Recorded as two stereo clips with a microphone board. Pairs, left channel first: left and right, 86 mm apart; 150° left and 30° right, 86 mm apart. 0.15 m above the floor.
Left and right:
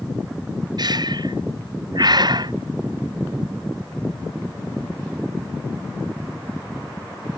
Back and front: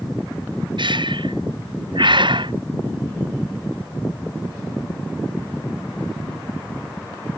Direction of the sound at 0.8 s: 55° right.